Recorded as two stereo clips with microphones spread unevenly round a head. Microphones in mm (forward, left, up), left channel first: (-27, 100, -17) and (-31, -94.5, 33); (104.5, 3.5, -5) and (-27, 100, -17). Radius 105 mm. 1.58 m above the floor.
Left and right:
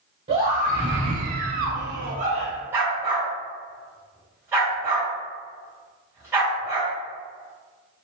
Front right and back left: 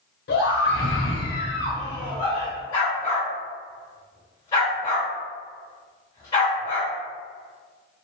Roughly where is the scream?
Ahead right.